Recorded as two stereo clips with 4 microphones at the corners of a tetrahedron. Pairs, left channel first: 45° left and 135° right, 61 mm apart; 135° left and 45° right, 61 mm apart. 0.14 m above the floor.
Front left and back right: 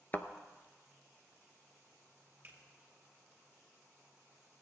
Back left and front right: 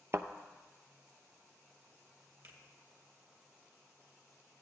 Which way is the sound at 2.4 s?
80° right.